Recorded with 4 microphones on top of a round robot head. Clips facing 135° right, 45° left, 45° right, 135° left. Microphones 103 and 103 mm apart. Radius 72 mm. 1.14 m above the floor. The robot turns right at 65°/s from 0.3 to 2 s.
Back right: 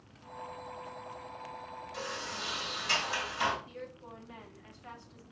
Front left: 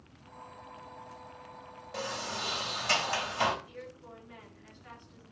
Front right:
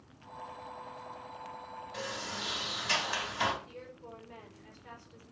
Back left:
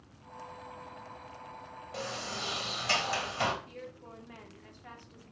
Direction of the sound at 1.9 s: 85° left.